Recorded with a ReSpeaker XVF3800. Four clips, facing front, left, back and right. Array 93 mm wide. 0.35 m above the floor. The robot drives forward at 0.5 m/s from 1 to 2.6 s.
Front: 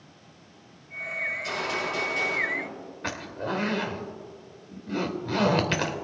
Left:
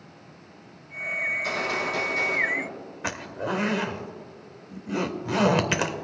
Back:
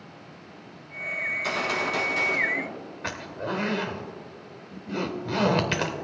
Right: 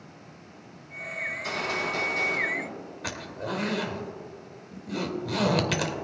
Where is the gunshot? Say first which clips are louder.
Left 2 dB, back 4 dB; straight behind, 3 m.